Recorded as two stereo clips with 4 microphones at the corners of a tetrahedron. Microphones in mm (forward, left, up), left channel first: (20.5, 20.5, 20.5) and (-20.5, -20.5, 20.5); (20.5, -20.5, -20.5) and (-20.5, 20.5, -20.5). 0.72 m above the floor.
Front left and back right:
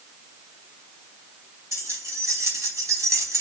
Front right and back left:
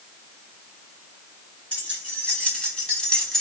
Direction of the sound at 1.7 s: 110° right.